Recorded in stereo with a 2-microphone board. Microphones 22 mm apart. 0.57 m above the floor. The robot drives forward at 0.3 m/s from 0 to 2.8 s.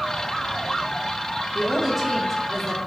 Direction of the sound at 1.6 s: Centre (ahead or behind).